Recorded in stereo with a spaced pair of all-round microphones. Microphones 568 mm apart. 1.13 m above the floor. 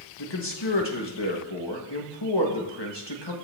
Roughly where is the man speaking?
Left.